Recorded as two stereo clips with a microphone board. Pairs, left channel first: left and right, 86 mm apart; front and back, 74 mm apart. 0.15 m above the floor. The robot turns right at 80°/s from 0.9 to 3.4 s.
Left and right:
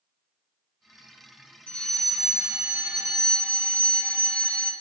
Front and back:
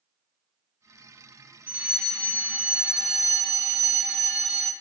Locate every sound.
1.7 s a fire alarm: 140° left, 2.5 m; by 4.7 s 85° right, 2.5 m